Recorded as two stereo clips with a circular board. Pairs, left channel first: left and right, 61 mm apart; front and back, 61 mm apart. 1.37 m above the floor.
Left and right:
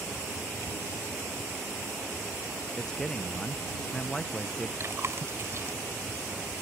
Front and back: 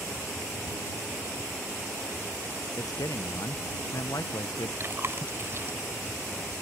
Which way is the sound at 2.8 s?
10° left.